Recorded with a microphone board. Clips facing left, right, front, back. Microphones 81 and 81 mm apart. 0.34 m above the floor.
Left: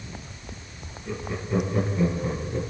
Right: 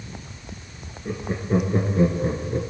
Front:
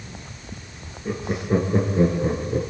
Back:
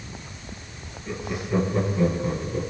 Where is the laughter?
45° right, 5 m; by 2.6 s 35° right, 5 m.